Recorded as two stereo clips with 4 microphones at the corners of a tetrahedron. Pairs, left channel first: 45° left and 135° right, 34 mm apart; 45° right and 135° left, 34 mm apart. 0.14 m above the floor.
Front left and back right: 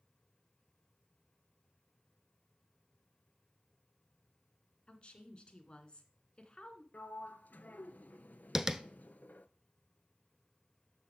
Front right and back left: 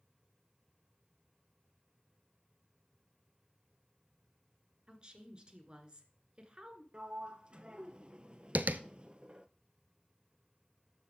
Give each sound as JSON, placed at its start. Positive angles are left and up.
{"t": 4.9, "sound": "a woman speaking", "azimuth_deg": 90, "distance_m": 1.8}
{"t": 6.9, "sound": "a sliding door", "azimuth_deg": 75, "distance_m": 0.7}
{"t": 8.6, "sound": "tapping", "azimuth_deg": 155, "distance_m": 0.7}